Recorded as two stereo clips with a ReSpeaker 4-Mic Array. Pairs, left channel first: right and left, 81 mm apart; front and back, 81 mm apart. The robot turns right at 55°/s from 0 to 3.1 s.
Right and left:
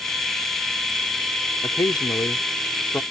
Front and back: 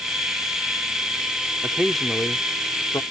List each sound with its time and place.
1.6 s a man speaking: 105° right; by 3.0 s 30° right